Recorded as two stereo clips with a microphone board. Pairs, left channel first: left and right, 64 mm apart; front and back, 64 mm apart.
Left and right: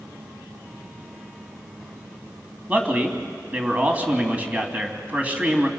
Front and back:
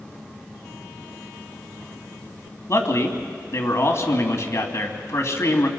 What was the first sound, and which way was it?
A man speaking, 30° right.